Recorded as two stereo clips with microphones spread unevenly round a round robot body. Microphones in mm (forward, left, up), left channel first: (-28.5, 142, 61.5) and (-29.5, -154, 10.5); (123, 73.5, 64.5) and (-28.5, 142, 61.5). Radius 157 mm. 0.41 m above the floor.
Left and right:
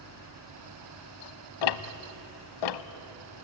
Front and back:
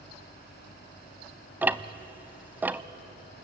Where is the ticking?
75° left, 0.7 m.